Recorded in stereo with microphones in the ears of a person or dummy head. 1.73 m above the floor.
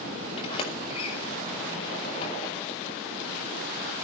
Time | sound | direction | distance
0.4 | a sliding door | 30° left (ahead or behind) | 5.5 m